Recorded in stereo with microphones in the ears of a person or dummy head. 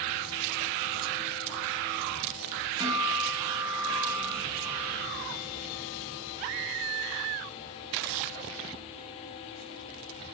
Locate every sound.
2.8 s a guitar: 20° right (ahead or behind), 6 m